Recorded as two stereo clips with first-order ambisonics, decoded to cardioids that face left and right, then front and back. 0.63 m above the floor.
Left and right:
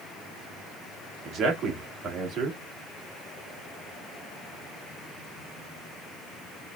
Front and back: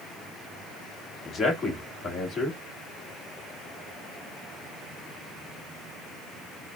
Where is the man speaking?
60° right, 1.3 m.